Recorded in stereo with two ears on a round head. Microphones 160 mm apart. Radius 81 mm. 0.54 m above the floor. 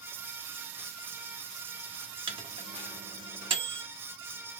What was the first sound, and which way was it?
A microwave, 30° right (ahead or behind).